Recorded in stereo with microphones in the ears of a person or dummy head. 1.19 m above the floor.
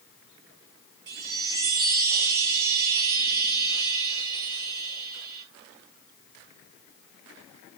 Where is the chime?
65° right (ahead or behind), 4.5 m.